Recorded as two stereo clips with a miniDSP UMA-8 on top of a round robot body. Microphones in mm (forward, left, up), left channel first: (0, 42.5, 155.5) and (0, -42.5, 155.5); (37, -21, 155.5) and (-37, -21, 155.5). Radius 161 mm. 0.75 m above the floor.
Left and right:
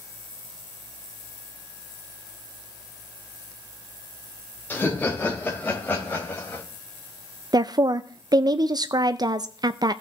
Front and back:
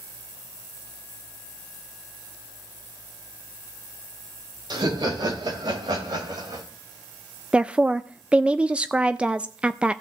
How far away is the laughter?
About 3 m.